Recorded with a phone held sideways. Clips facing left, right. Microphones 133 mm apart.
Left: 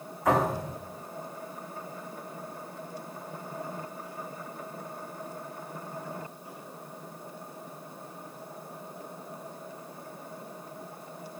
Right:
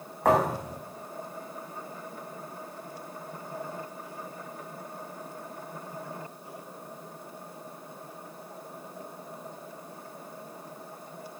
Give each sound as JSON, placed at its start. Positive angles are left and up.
{"t": 0.2, "sound": "a thud", "side_deg": -70, "distance_m": 8.0}